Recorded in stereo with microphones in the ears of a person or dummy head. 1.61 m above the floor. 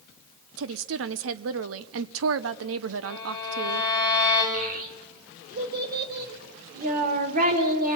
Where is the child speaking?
45° right (ahead or behind), 3 m.